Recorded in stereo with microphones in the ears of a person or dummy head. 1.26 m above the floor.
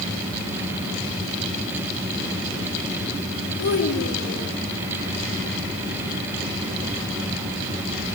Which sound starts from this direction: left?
A child speaking, at 3.6 s.